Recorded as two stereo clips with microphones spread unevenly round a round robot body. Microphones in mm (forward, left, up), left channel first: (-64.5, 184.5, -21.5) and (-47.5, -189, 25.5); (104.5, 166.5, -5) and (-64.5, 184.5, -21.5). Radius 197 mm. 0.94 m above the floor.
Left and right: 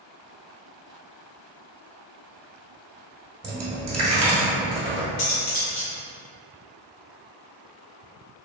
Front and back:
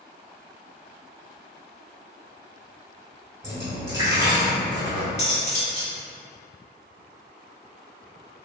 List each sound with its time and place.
3.4 s a dropped coin: 120° right, 1.0 m
5.2 s cutlery clinking: 50° left, 1.6 m